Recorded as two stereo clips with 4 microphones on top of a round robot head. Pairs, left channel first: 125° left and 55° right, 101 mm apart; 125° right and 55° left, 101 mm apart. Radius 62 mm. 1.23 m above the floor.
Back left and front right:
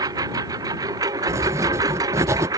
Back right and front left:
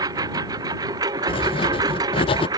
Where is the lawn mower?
Straight ahead.